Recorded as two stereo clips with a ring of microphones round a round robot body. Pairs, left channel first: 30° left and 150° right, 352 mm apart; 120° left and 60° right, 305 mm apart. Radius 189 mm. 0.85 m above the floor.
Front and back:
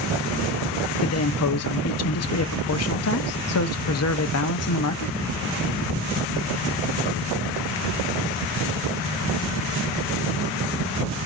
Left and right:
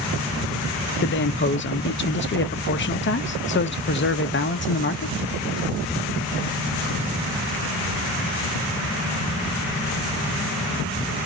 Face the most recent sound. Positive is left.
turn(degrees=70)